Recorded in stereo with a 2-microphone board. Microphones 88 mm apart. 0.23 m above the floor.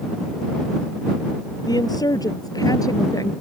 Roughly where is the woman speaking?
Left.